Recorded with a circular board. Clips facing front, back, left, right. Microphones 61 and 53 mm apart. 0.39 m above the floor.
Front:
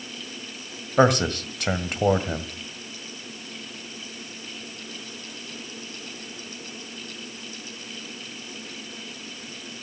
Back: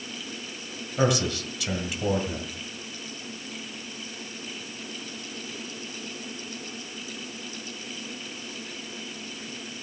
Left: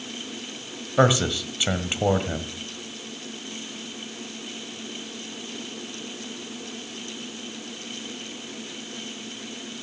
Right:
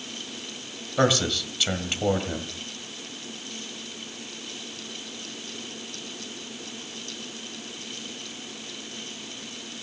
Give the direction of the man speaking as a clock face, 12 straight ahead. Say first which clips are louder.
Front 5 dB, left 3 dB; 11 o'clock.